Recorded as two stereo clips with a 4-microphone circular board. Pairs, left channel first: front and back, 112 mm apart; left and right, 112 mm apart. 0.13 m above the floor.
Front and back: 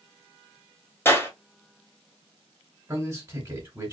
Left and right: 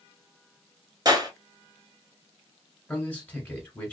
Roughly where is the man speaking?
Behind left.